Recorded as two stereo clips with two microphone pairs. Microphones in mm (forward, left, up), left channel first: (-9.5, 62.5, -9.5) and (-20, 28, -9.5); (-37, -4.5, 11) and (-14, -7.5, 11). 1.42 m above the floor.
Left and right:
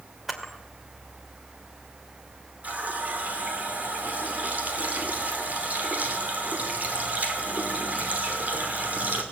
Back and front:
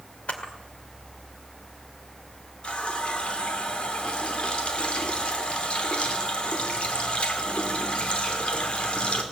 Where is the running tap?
155° right, 2.5 m.